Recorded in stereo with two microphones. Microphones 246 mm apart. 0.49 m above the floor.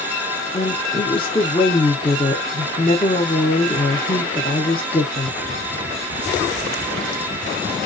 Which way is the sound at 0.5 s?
20° left (ahead or behind).